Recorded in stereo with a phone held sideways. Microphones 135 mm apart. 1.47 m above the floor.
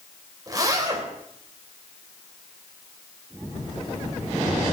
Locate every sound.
0.5 s a zipper: 30° right (ahead or behind), 3.5 m